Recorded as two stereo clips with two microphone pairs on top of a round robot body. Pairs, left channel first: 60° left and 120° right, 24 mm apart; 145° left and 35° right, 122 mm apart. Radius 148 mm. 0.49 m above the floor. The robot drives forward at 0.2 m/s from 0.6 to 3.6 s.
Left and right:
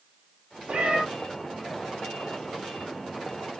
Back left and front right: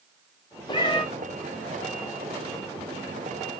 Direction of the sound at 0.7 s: 160° right.